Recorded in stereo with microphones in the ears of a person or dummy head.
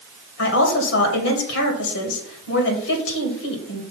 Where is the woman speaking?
75° left (ahead or behind), 2 m.